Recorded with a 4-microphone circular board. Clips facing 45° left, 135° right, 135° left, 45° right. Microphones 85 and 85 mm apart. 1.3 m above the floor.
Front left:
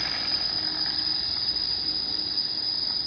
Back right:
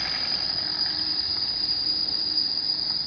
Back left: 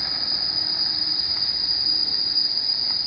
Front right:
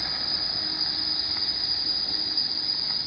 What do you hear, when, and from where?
0.0 s an insect: 65° left, 1.6 m